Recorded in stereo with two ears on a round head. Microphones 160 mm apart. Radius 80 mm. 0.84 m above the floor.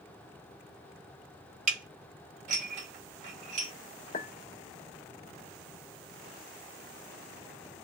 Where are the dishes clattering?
40° right (ahead or behind), 1.8 m.